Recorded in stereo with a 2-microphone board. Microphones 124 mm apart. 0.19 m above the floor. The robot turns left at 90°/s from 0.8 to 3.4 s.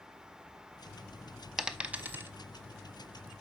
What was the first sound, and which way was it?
A dropped coin, 5° right (ahead or behind).